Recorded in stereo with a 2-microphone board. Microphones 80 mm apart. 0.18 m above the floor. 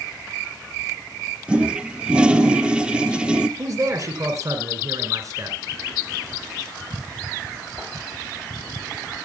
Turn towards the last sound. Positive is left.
turn(degrees=-45)  # may be behind; listen again after turning